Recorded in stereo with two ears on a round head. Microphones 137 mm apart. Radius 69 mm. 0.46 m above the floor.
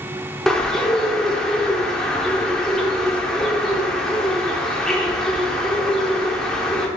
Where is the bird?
5° left (ahead or behind), 0.5 m.